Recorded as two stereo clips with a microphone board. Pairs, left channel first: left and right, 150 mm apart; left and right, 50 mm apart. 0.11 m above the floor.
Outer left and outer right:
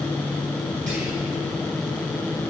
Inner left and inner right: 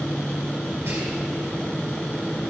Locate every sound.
0.9 s whispering: 55° right (ahead or behind), 2.5 m